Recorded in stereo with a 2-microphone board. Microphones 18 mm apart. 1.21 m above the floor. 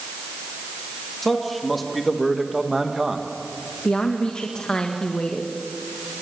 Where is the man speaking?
15° left (ahead or behind), 2.5 m; by 3.3 s 25° right (ahead or behind), 1.5 m.